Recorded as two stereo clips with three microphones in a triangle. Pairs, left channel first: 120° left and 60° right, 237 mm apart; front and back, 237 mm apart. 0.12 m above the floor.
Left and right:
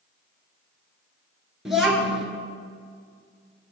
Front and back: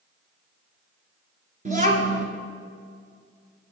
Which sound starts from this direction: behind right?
A child speaking, at 1.6 s.